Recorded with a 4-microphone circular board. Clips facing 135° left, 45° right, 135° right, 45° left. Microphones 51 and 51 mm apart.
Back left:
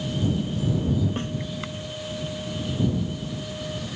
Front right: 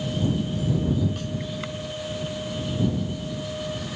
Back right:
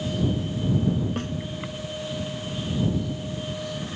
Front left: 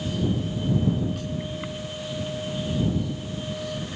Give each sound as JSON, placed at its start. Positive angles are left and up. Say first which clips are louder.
{"t": 1.2, "sound": "a snare drum", "louder": "back left 3 dB, back right 3 dB", "azimuth_deg": -175}